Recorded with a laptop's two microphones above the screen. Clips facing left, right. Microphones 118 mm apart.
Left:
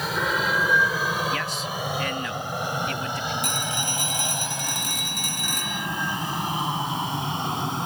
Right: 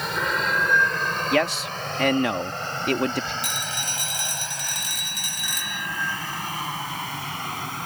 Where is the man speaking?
70° right (ahead or behind).